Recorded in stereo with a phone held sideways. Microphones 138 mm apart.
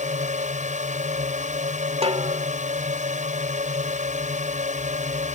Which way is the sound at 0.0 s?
60° right (ahead or behind).